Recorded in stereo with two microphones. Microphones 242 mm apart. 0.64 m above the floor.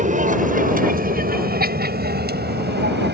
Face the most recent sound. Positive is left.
turn(degrees=-45)  # may be behind; listen again after turning